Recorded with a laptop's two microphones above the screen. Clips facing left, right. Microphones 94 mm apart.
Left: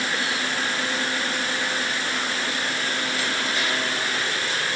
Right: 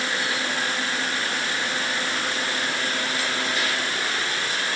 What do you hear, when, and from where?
Only background noise.